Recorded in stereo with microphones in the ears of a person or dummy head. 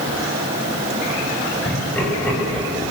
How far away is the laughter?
About 9 m.